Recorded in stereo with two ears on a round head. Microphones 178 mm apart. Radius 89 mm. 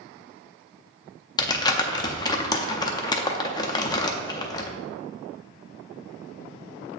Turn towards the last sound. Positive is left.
turn(degrees=20)  # may be behind; listen again after turning